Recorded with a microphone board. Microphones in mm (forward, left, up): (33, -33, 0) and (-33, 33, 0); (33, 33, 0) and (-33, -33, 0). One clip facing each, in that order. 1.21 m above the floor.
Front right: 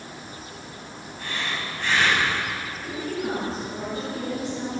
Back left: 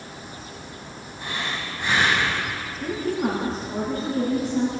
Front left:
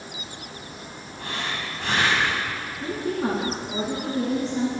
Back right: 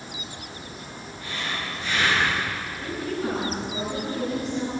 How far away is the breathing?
About 8.5 m.